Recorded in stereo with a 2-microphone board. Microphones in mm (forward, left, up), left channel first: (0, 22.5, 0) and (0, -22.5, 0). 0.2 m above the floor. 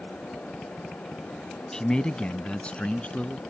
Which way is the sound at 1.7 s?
15° left (ahead or behind).